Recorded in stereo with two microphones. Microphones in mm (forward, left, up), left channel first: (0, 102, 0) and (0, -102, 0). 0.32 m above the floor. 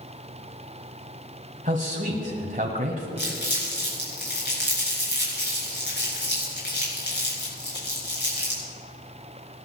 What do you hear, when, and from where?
1.6 s a man speaking: 40° right (ahead or behind), 1.5 m
3.2 s crumpling: 50° left (ahead or behind), 5.5 m